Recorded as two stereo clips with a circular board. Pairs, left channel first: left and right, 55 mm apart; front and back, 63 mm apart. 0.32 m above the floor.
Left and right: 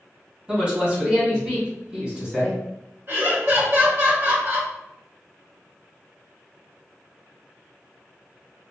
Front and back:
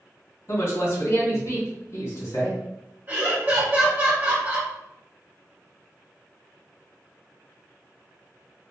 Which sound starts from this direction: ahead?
A woman speaking, at 0.5 s.